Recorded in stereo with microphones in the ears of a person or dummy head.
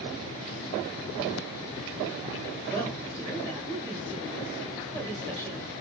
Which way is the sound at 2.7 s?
15° left (ahead or behind).